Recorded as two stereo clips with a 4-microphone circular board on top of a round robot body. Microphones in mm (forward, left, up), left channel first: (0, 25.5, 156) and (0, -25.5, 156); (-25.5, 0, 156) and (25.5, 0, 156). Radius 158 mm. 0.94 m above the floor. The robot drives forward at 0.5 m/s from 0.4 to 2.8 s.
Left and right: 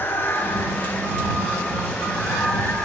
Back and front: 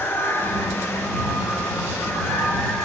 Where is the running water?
135° left, 1.1 m; by 2.9 s 160° left, 2 m.